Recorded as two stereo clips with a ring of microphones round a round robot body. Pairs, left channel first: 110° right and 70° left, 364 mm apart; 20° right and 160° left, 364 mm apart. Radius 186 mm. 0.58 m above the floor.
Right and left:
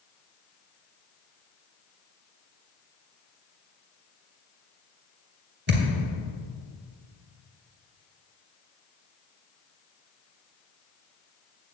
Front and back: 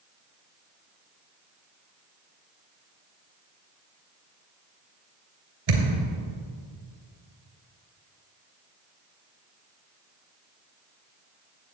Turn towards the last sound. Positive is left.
turn(degrees=130)